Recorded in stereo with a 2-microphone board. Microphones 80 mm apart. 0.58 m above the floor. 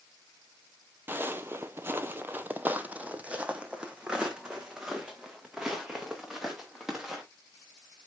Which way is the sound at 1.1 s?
25° right (ahead or behind).